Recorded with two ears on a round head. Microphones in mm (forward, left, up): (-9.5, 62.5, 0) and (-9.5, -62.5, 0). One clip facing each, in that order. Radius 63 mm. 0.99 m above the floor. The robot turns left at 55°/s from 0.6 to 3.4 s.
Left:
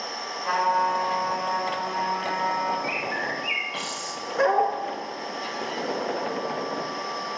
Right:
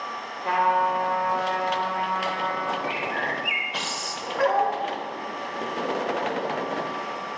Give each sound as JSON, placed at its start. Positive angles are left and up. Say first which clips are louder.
{"t": 0.4, "sound": "a trumpet", "louder": "right 1 dB", "azimuth_deg": -40, "distance_m": 3.0}
{"t": 2.8, "sound": "a bird", "louder": "right 1 dB", "azimuth_deg": 35, "distance_m": 0.9}
{"t": 4.4, "sound": "a dog barking", "louder": "left 1 dB", "side_deg": 50, "distance_m": 1.2}